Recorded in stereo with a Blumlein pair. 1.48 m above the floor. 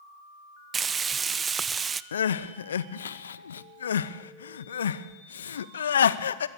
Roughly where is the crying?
Ahead left.